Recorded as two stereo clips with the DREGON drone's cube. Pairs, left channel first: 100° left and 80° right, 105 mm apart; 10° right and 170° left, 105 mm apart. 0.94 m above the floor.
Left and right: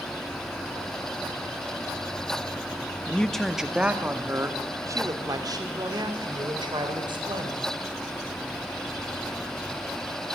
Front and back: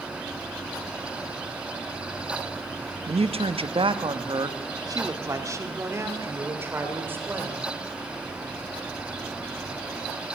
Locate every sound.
3.1 s a man speaking: 175° left, 1.3 m; by 7.7 s 120° right, 4.5 m